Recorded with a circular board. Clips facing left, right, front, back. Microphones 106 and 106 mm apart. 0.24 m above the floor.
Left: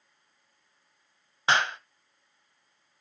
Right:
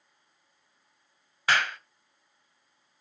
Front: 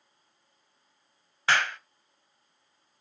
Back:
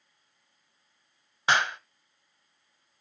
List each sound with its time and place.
1.5 s a clap: 125° left, 0.8 m